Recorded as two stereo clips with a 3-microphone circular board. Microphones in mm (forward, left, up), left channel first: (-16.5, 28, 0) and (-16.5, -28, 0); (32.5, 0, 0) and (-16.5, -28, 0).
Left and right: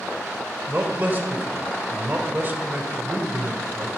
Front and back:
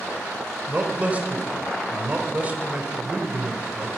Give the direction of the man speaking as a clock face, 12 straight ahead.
4 o'clock.